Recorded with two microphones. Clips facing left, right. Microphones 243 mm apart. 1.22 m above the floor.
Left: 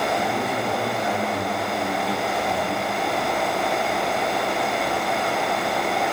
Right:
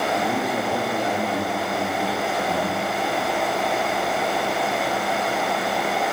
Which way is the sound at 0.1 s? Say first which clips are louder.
Right 1 dB; 35° right (ahead or behind).